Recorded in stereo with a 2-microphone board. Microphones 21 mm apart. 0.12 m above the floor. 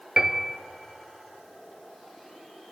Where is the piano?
25° right (ahead or behind), 0.7 m.